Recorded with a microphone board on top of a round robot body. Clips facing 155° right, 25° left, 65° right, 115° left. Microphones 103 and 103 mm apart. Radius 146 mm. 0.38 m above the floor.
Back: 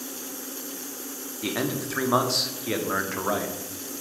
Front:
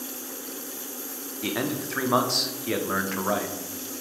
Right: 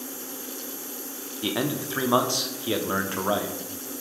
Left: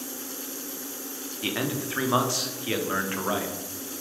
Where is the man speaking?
70° right, 1.0 m.